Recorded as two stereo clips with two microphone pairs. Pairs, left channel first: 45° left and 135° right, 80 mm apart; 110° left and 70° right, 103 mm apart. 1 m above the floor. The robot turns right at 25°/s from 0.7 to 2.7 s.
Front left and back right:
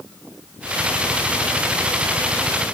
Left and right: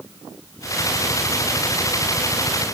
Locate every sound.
Only background noise.